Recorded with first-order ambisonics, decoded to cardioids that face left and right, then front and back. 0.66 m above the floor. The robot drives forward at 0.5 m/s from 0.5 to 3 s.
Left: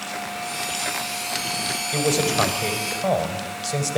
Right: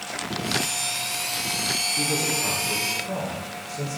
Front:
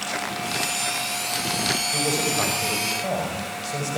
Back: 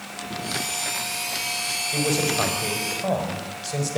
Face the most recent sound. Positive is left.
turn(degrees=100)